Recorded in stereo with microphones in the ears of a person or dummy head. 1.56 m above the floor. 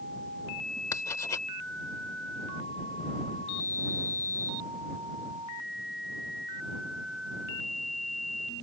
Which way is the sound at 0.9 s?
15° left (ahead or behind).